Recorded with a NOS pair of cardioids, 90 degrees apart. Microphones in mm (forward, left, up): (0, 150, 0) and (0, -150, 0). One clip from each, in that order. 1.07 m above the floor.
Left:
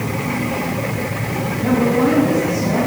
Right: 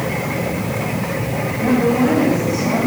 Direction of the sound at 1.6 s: 20° right.